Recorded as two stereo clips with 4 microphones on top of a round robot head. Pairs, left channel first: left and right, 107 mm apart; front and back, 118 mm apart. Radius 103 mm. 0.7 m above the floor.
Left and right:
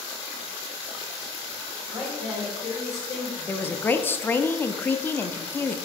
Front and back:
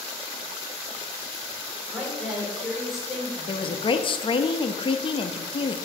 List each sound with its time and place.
1.9 s a woman speaking: 95° left, 3 m
3.5 s a woman speaking: 25° left, 0.7 m